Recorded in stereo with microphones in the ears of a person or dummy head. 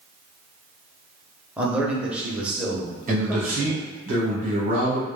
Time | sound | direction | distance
1.6 | a man speaking | 5° right (ahead or behind) | 0.7 m
3.1 | a man speaking | 45° right (ahead or behind) | 1.1 m